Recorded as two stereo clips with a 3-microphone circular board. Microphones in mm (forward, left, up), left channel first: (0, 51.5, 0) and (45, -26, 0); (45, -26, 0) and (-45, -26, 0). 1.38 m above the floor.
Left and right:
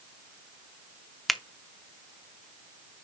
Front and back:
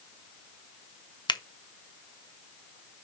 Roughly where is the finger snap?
Ahead left.